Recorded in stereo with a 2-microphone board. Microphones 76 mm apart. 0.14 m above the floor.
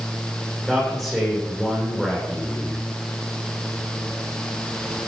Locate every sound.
0.7 s a man speaking: 5° left (ahead or behind), 8 m